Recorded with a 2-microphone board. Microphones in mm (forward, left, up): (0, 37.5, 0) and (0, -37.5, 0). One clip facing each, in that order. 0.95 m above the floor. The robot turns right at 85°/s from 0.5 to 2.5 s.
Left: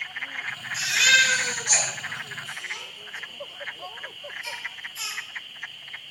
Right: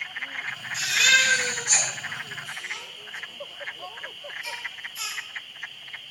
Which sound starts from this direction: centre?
A baby crying, at 0.7 s.